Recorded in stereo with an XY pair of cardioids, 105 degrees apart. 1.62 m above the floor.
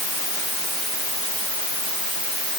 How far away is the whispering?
No whispering in this recording.